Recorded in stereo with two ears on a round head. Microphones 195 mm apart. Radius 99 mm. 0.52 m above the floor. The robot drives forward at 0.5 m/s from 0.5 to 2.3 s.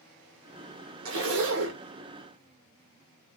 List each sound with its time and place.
1.1 s a zipper: 65° right (ahead or behind), 0.7 m; by 1.8 s 70° right (ahead or behind), 0.7 m